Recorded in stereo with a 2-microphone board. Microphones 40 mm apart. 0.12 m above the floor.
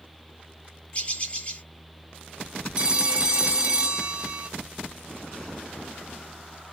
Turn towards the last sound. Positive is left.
turn(degrees=-30)  # may be behind; listen again after turning